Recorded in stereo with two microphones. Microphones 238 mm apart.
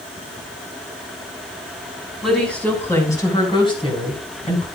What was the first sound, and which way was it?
A woman speaking, centre (ahead or behind).